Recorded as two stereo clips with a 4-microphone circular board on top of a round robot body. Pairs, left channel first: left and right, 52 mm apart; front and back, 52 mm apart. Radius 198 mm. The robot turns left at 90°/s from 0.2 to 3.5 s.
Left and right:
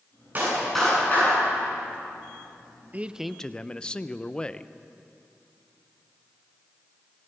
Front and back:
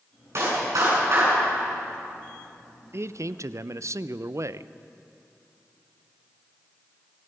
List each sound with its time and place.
0.3 s a clap: 145° right, 9.5 m; by 1.4 s 125° left, 9.5 m
2.9 s a man speaking: 145° right, 0.7 m; by 4.7 s 160° left, 0.7 m